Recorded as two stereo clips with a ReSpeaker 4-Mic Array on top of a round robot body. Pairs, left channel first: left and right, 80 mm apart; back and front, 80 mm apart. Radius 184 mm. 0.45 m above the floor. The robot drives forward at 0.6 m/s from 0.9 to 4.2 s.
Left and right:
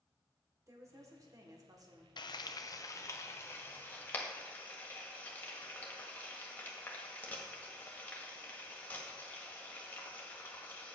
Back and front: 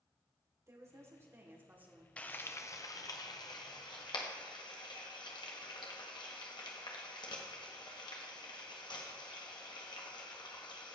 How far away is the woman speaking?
About 2 m.